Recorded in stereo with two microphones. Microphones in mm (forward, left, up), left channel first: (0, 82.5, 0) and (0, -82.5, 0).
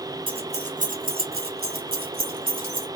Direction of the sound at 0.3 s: 35° right (ahead or behind).